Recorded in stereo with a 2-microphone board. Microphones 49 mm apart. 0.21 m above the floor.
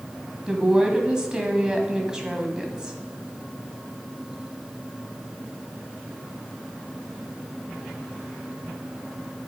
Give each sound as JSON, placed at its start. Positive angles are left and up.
{"t": 0.5, "sound": "a woman speaking", "side_deg": -15, "distance_m": 1.2}